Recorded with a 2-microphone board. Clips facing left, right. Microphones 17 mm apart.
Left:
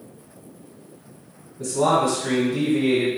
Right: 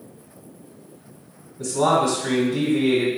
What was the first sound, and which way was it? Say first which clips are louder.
A man speaking: even; 25° right (ahead or behind).